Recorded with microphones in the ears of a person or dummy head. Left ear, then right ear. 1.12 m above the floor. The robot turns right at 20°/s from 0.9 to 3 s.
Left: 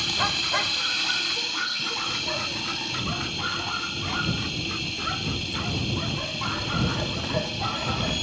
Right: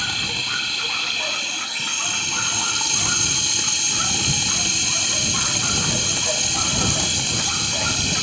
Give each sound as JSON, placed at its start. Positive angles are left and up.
{"t": 0.0, "sound": "running water", "azimuth_deg": -160}